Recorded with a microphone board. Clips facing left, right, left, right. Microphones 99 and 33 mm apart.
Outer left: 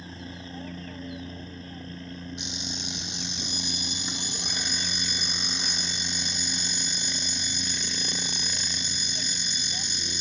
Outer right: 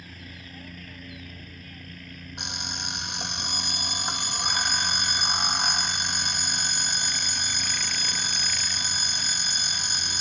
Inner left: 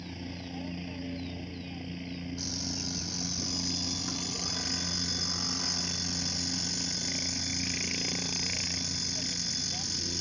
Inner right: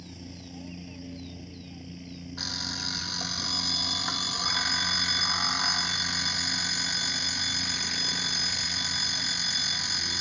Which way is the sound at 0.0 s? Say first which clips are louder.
Outer left 5 dB, inner left 4 dB; 30° left (ahead or behind).